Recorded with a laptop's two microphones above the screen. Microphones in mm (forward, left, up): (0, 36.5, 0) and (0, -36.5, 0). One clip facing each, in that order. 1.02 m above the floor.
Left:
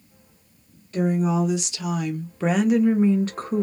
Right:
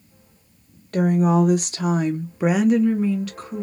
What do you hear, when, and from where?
0.9 s a woman speaking: 55° right (ahead or behind), 1.2 m; by 3.6 s 45° left (ahead or behind), 0.8 m